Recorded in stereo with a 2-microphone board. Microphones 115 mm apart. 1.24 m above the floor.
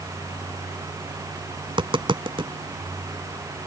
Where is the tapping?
45° right (ahead or behind).